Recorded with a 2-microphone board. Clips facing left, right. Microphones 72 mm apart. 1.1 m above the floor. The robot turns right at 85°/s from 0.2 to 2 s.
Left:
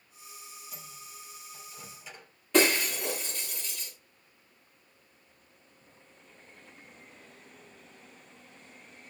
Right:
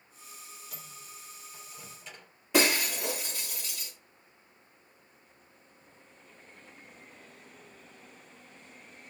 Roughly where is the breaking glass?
Centre.